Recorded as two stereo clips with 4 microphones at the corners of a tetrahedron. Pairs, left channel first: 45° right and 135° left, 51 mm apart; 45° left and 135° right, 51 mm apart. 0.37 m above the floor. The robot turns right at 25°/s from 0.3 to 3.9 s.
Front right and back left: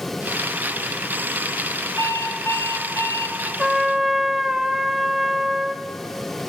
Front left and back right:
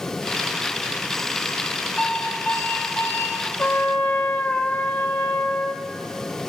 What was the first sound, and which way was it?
An alarm clock, 35° right.